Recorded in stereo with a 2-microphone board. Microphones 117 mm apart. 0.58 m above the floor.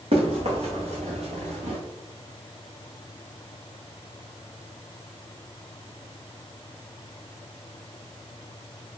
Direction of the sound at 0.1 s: 60° right (ahead or behind).